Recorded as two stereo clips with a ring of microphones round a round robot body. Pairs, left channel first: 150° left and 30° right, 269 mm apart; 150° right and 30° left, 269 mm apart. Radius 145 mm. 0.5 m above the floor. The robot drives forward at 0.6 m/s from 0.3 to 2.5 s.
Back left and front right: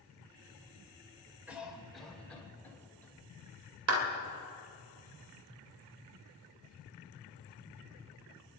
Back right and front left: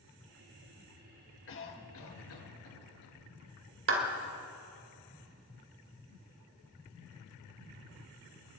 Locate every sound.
1.5 s a cough: 115° right, 2.5 m; by 3.1 s 125° right, 3 m
3.9 s a clap: 5° right, 2.5 m